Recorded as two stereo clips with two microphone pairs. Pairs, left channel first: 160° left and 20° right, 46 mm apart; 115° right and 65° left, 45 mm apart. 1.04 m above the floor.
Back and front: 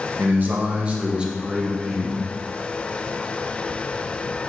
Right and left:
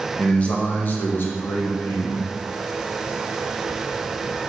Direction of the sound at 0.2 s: 50° right.